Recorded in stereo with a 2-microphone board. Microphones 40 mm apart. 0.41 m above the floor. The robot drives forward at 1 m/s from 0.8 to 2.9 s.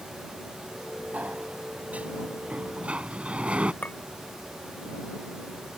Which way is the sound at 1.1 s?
45° right (ahead or behind).